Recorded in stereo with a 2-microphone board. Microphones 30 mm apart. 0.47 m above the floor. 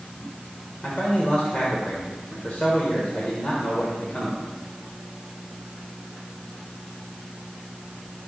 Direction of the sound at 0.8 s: 40° left (ahead or behind).